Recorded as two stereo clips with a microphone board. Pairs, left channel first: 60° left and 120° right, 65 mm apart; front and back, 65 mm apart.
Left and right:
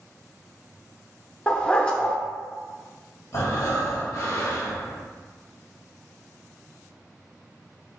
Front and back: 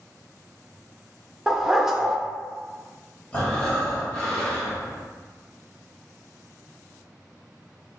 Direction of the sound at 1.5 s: 110° left.